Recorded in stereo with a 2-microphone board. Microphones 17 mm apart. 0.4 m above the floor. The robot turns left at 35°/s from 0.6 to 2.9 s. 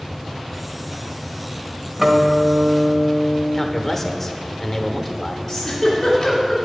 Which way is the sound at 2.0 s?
25° right.